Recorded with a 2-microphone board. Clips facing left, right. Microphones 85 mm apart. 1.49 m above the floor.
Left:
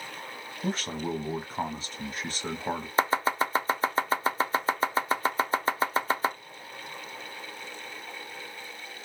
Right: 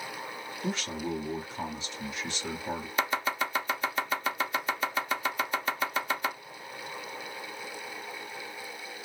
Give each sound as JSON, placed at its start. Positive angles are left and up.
{"t": 0.6, "sound": "a man speaking", "side_deg": 40, "distance_m": 1.1}
{"t": 3.0, "sound": "chopping", "side_deg": 35, "distance_m": 0.6}